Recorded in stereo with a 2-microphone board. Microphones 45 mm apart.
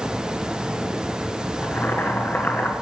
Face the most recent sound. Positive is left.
turn(degrees=45)  # may be behind; listen again after turning